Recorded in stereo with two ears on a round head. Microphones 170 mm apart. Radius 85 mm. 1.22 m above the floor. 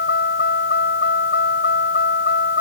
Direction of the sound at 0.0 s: 50° left (ahead or behind).